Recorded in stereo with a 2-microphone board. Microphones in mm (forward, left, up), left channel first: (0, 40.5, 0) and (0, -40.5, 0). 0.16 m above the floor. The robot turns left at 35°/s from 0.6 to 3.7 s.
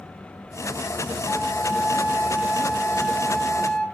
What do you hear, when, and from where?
1.2 s a flute: 110° right, 1.4 m; by 3.8 s 165° left, 1.4 m